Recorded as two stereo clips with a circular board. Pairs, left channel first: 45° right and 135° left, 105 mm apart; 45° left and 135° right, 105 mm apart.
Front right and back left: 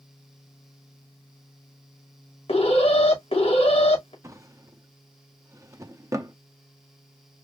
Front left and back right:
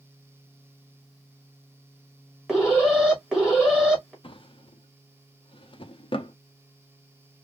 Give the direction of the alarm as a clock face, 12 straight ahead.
2 o'clock.